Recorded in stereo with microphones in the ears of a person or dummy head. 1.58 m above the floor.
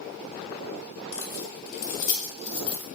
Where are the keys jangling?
70° left (ahead or behind), 1.5 m; by 2.9 s 30° left (ahead or behind), 1.9 m.